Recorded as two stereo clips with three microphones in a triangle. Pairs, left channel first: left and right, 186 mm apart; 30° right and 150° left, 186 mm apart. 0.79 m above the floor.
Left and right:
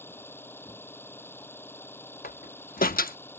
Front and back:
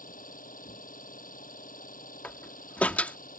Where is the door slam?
50° left.